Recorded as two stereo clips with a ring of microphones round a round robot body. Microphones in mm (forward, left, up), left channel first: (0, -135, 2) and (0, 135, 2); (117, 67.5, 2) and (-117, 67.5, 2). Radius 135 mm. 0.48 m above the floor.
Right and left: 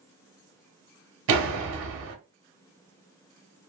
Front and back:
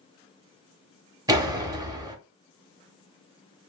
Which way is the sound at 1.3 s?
110° left.